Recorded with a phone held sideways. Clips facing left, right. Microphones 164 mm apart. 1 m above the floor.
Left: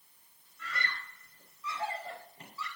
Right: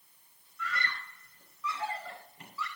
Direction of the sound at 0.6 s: 30° left (ahead or behind).